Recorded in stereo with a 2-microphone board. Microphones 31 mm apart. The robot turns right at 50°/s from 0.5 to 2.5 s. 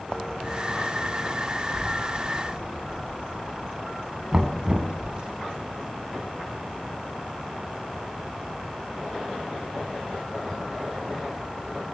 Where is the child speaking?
75° right (ahead or behind), 6.5 m; by 5.3 s 30° right (ahead or behind), 6.5 m.